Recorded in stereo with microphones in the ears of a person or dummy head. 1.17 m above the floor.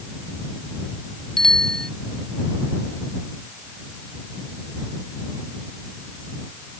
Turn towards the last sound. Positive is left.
turn(degrees=5)  # may be behind; listen again after turning